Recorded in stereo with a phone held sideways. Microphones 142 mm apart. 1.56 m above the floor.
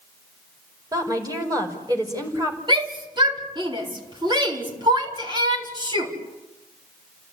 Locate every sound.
0.9 s a woman speaking: 25° right (ahead or behind), 5 m
2.7 s a shout: 35° right (ahead or behind), 4 m